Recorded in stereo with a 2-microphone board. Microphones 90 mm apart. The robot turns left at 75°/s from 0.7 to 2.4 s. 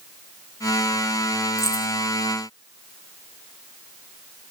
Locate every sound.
1.6 s keys jangling: 30° left (ahead or behind), 4 m; by 1.9 s 50° left (ahead or behind), 4 m